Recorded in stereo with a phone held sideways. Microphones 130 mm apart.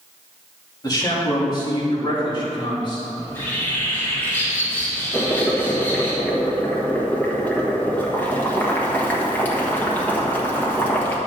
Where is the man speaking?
30° left (ahead or behind), 3 m; by 3.0 s 40° left (ahead or behind), 5 m.